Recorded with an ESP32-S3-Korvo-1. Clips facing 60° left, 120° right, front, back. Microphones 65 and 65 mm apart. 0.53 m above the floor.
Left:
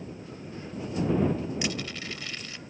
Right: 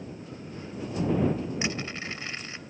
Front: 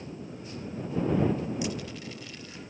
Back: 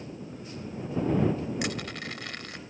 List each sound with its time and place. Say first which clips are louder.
1.6 s crushing: right 1 dB, back 1 dB; straight behind